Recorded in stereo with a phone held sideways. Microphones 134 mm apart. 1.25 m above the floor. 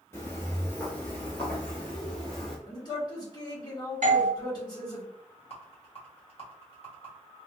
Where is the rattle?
45° left (ahead or behind), 1.4 m.